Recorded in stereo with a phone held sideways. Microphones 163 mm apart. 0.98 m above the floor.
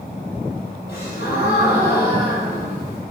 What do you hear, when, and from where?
0.9 s a gasp: 75° left (ahead or behind), 4.5 m